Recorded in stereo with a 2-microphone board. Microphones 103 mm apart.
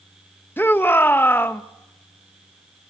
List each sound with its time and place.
0.6 s a shout: 20° left (ahead or behind), 0.9 m